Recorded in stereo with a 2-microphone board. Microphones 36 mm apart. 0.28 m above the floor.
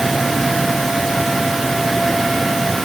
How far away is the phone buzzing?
No phone buzzing in this recording.